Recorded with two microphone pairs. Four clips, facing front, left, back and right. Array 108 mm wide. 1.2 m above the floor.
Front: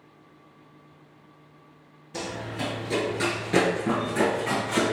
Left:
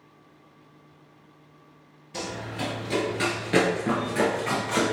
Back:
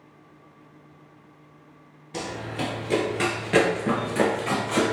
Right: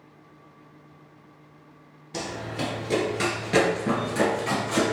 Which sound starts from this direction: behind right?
Running footsteps, at 2.1 s.